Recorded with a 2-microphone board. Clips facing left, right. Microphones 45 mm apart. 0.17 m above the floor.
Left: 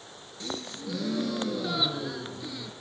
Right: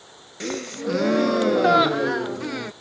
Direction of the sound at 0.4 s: 70° right (ahead or behind).